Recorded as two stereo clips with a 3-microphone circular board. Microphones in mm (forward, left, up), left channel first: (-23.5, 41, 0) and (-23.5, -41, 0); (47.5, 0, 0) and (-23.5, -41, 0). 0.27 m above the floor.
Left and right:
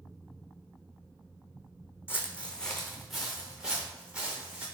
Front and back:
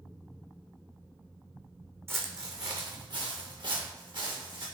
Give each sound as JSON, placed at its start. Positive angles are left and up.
{"t": 2.1, "sound": "footsteps", "azimuth_deg": 150, "distance_m": 0.6}